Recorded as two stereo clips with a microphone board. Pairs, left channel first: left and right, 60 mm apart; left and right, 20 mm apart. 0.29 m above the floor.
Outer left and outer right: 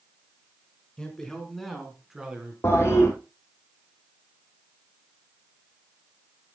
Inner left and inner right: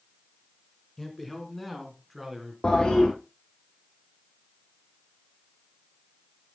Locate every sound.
1.0 s a man speaking: 10° left (ahead or behind), 3 m; by 2.5 s 15° right (ahead or behind), 3 m
2.6 s a toilet flushing: 45° left (ahead or behind), 3 m